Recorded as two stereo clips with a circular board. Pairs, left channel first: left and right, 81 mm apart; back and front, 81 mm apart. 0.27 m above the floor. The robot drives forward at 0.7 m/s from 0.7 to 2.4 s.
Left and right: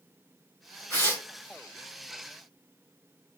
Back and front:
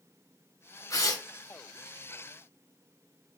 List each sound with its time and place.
0.9 s tearing paper: 145° left, 3 m; by 1.2 s 150° left, 3 m